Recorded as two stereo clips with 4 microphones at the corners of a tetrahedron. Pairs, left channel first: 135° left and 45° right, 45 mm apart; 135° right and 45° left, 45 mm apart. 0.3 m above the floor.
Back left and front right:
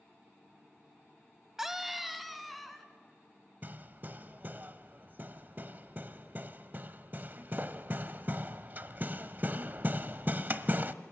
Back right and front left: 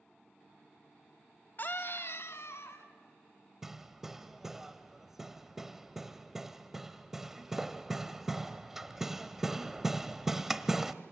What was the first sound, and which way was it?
A scream, 120° right.